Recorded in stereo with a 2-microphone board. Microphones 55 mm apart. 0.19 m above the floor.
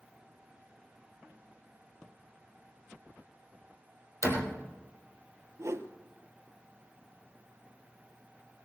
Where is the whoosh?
55° right (ahead or behind), 1.1 m.